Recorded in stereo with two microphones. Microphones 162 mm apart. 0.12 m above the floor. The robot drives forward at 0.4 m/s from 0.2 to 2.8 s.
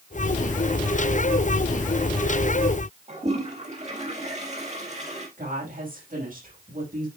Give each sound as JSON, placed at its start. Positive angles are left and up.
{"t": 3.1, "sound": "a toilet flushing", "side_deg": -45, "distance_m": 4.0}
{"t": 5.4, "sound": "a woman speaking", "side_deg": -60, "distance_m": 6.0}